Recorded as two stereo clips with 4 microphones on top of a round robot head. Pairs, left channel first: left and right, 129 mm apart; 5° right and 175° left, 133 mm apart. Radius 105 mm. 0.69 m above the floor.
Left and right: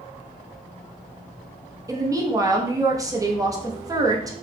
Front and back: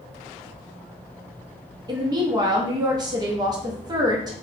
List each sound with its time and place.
1.9 s a woman speaking: 140° right, 0.6 m